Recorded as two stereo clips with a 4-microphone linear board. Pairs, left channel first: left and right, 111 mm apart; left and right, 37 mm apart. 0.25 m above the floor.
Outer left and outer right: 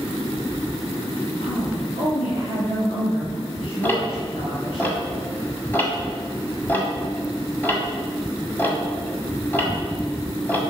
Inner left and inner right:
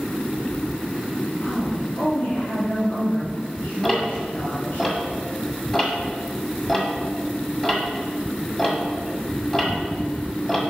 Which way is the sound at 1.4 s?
65° left (ahead or behind).